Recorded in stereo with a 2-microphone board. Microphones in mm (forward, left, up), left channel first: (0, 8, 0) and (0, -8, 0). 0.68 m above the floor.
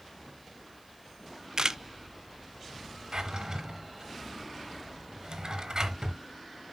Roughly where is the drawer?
Right.